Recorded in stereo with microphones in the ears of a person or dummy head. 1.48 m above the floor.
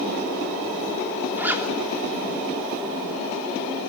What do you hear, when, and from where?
1.4 s a zipper: 10° right (ahead or behind), 3 m